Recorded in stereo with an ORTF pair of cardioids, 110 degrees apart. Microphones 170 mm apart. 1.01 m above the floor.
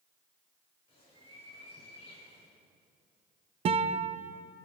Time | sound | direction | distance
0.9 | a bird | 35° left | 5 m
3.6 | a guitar | 40° right | 0.7 m